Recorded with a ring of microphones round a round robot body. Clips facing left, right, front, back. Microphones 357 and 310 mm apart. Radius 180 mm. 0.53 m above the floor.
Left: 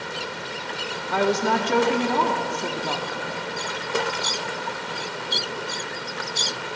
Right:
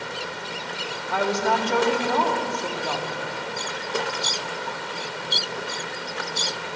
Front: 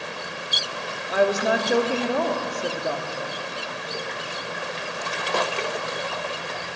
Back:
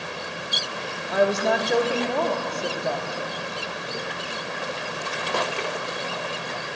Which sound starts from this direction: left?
A woman speaking, at 1.1 s.